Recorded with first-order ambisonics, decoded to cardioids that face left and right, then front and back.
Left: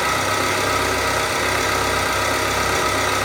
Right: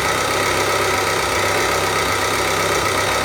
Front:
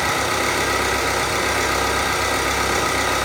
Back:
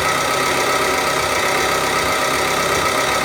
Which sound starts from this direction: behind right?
An engine running, at 0.0 s.